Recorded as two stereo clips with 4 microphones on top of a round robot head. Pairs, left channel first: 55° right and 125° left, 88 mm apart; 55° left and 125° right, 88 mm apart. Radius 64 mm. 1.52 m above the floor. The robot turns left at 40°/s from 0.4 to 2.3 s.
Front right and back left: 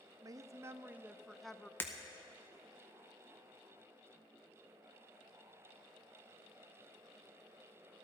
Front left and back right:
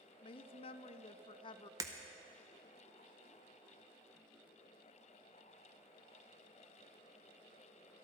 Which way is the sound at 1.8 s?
110° right.